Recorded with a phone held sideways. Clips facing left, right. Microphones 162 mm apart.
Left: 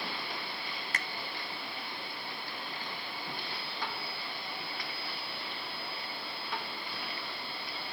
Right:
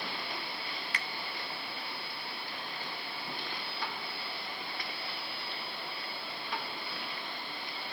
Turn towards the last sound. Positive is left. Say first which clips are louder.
# left 2 dB
turn(degrees=45)  # may be behind; listen again after turning